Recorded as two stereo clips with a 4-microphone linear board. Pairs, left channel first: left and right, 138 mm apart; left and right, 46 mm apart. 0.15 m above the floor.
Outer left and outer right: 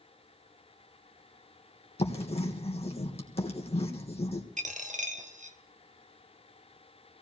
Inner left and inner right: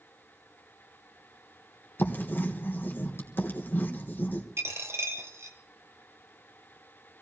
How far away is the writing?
About 3 m.